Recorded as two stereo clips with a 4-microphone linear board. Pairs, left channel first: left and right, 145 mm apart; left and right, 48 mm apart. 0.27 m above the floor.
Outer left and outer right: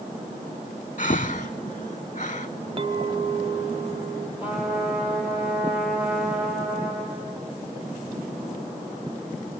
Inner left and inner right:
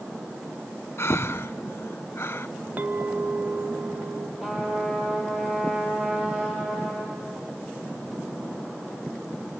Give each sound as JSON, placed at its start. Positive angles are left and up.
{"t": 1.0, "sound": "breathing", "side_deg": 55, "distance_m": 0.6}
{"t": 2.8, "sound": "a clink", "side_deg": -40, "distance_m": 0.6}
{"t": 4.4, "sound": "a trumpet", "side_deg": -15, "distance_m": 6.0}